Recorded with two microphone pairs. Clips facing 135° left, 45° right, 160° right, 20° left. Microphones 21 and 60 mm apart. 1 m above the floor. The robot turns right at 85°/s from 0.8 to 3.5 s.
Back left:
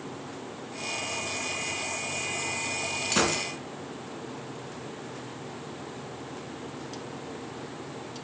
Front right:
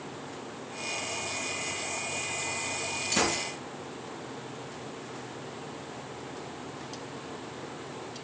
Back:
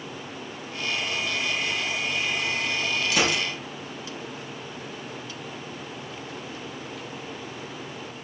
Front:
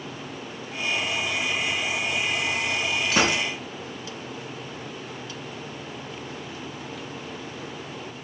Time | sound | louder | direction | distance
3.1 | a gunshot | back left 2 dB, front 2 dB | 65° left | 2.5 m